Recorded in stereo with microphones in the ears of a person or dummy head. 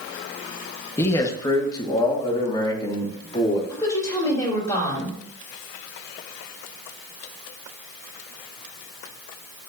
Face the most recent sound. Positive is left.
turn(degrees=25)  # may be behind; listen again after turning